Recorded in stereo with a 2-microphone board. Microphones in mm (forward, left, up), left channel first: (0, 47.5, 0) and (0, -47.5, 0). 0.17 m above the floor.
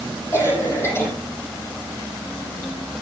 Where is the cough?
30° left (ahead or behind), 6.5 m.